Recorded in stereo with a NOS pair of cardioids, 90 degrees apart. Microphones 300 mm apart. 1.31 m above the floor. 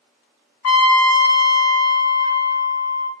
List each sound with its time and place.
0.6 s a trumpet: 60° left, 1.0 m